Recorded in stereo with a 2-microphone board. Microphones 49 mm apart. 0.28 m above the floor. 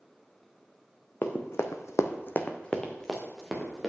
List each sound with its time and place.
1.2 s running footsteps: 45° left (ahead or behind), 1.4 m; by 3.9 s centre (ahead or behind), 3 m